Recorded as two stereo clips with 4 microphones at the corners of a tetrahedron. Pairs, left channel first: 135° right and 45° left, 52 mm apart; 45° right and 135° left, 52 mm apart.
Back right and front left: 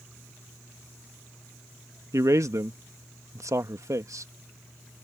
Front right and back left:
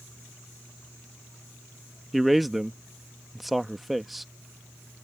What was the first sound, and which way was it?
A man speaking, 45° left.